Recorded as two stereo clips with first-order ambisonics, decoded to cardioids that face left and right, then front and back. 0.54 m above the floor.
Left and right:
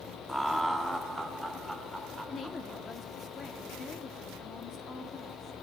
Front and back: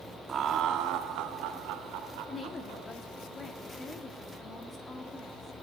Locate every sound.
0.3 s laughter: straight behind, 0.6 m; by 2.9 s 175° right, 1.8 m
2.3 s a woman speaking: 55° left, 1.0 m